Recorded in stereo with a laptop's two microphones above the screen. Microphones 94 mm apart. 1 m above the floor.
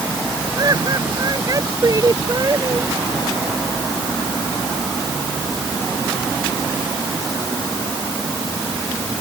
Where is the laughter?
40° right (ahead or behind).